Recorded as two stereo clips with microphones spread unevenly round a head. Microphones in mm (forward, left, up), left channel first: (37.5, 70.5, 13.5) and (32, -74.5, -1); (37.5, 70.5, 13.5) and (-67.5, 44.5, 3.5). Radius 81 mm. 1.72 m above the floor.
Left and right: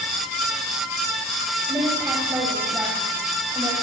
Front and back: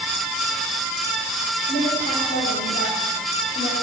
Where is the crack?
I don't hear a crack.